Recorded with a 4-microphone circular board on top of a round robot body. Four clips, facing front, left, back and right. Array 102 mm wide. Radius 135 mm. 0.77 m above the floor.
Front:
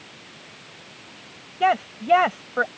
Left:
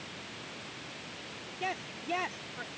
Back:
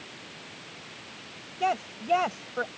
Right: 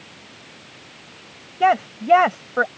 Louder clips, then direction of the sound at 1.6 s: Right 20 dB, front 7 dB; 70° right.